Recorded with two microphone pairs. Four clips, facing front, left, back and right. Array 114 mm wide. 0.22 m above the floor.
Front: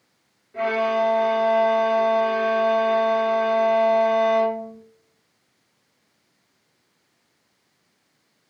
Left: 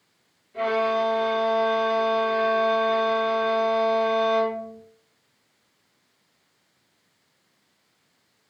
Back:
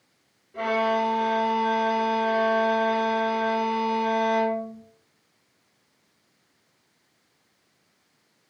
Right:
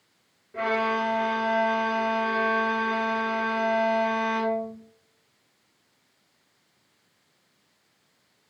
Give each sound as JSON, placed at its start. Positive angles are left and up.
{"t": 0.5, "sound": "a violin", "azimuth_deg": -80, "distance_m": 1.7}